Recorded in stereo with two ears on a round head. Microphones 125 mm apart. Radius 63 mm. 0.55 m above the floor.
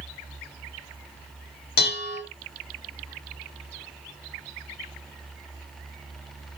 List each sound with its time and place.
1.8 s dishes clattering: 80° left, 2.5 m